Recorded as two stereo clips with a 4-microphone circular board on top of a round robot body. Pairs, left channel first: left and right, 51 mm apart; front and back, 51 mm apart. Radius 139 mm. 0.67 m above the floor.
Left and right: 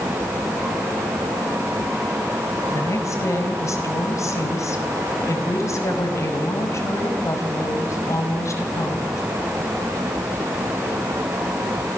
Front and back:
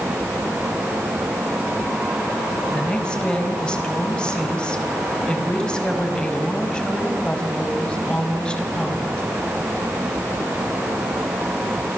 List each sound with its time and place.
2.7 s a woman speaking: 75° left, 5.5 m